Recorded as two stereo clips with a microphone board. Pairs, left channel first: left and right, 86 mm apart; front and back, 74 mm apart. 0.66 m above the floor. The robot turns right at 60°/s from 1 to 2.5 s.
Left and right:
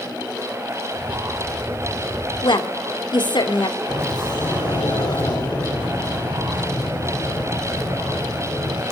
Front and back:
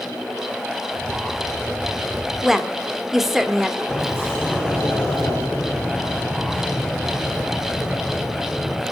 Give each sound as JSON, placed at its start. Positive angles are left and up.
{"t": 2.4, "sound": "a woman speaking", "azimuth_deg": 90, "distance_m": 1.7}
{"t": 3.9, "sound": "a sliding door", "azimuth_deg": 60, "distance_m": 9.0}